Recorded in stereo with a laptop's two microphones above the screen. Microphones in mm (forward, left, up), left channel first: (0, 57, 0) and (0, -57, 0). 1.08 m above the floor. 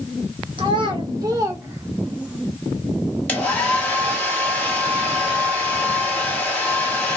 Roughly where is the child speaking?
Right.